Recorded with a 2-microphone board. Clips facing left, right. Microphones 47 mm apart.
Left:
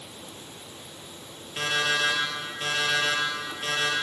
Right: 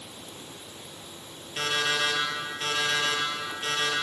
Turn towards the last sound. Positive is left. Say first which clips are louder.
# left 1 dB
turn(degrees=5)  # may be behind; listen again after turning